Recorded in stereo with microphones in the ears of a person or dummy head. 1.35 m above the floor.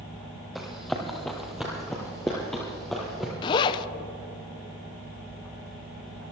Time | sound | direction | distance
0.6 | running footsteps | centre (ahead or behind) | 2 m
3.4 | a zipper | 25° left (ahead or behind) | 0.5 m